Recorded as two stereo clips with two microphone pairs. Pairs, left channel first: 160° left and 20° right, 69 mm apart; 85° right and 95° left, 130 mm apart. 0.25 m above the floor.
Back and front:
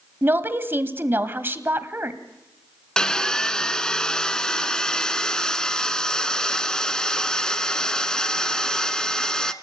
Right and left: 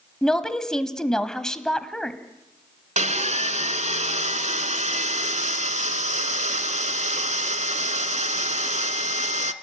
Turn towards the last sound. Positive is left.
turn(degrees=80)